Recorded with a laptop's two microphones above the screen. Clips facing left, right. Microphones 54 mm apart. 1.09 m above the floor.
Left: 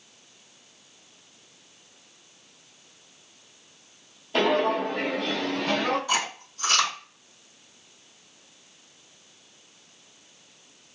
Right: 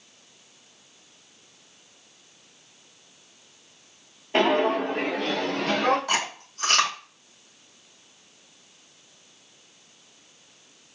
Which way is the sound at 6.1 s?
80° right.